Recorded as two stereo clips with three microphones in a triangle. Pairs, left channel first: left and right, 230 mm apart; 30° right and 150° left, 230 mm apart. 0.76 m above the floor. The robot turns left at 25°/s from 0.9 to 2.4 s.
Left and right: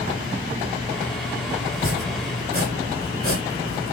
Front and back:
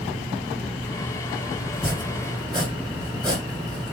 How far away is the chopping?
About 1.6 m.